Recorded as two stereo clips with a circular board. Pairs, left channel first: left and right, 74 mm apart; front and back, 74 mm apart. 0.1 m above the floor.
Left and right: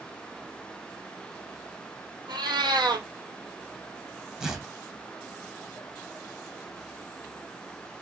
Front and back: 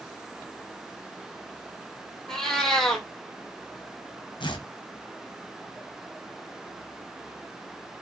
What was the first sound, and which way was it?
A cat meowing, 85° right.